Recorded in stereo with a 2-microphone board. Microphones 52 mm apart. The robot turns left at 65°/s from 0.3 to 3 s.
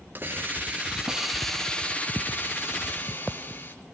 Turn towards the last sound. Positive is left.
turn(degrees=75)